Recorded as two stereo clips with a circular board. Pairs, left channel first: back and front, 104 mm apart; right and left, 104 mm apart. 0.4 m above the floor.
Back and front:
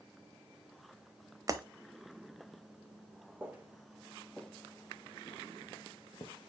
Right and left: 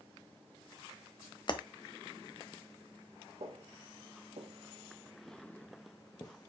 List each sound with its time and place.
1.5 s breaking glass: 50° right, 0.7 m
3.4 s footsteps: 75° left, 1.8 m; by 6.5 s 140° right, 1.8 m